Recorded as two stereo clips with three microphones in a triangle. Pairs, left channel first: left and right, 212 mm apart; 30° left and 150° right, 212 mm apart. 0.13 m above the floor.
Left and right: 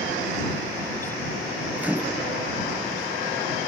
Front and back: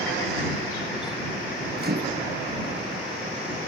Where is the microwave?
170° right.